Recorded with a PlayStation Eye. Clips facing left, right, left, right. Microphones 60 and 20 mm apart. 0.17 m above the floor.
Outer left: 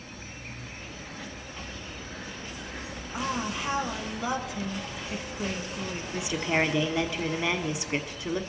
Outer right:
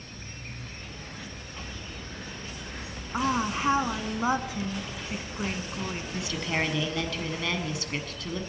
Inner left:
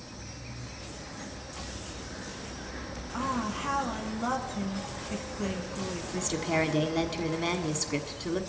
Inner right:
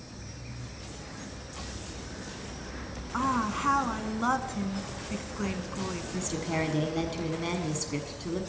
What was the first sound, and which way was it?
An insect, 5° left (ahead or behind).